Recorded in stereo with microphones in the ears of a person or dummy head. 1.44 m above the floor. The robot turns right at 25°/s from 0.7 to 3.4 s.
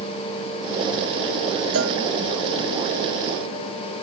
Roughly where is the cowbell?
Right.